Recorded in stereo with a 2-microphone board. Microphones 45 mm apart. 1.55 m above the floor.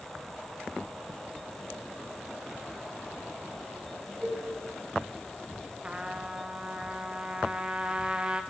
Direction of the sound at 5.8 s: 20° right (ahead or behind).